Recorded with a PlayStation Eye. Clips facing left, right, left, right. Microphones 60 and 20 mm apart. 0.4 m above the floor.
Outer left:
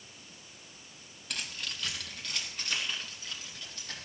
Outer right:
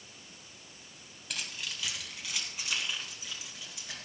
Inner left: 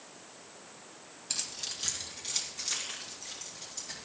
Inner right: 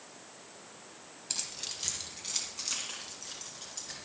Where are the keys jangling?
Centre (ahead or behind), 1.8 m; by 4.1 s 10° right (ahead or behind), 4.5 m.